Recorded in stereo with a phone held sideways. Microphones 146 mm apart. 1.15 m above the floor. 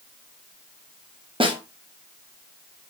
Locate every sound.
1.4 s a snare drum: 35° right (ahead or behind), 0.7 m